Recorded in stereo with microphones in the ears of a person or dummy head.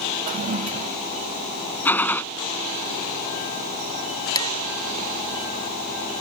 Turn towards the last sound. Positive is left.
turn(degrees=25)  # may be behind; listen again after turning